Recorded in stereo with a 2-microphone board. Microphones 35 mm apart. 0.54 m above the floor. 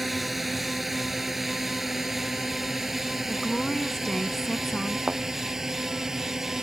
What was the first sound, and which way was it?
A drone, centre (ahead or behind).